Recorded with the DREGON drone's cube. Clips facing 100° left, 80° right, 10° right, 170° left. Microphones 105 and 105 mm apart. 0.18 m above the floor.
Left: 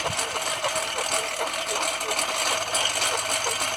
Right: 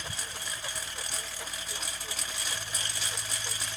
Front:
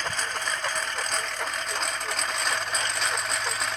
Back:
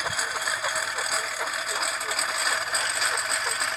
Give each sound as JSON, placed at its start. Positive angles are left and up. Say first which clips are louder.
{"t": 0.0, "sound": "a lawn mower", "louder": "left 13 dB, back 1 dB", "azimuth_deg": 85}